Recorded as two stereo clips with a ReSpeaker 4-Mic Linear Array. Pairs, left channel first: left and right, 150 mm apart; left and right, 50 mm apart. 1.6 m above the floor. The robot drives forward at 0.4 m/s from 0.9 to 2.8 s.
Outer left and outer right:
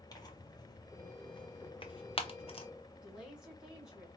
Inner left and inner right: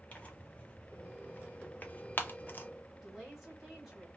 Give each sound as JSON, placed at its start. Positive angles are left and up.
{"t": 0.1, "sound": "tearing paper", "side_deg": 25, "distance_m": 0.8}
{"t": 3.0, "sound": "a woman speaking", "side_deg": -5, "distance_m": 1.9}